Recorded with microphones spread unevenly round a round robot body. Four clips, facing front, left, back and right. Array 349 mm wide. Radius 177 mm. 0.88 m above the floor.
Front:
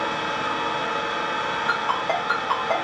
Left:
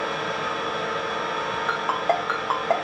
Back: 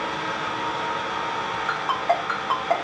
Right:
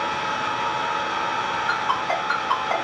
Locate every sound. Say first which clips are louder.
0.0 s an engine running: right 2 dB, front 2 dB; 60° left, 1.3 m
1.7 s a ringtone: left 2 dB, back 2 dB; 80° left, 1.2 m